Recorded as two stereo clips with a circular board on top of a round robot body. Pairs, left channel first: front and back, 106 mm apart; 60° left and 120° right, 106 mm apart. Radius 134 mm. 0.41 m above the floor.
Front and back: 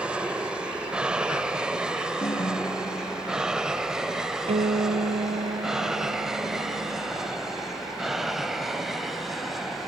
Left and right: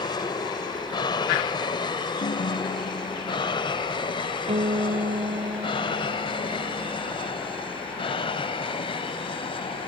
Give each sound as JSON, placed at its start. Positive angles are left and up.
{"t": 0.0, "sound": "an aircraft", "azimuth_deg": 100}
{"t": 2.2, "sound": "a ringtone", "azimuth_deg": 50}
{"t": 4.5, "sound": "a guitar", "azimuth_deg": -155}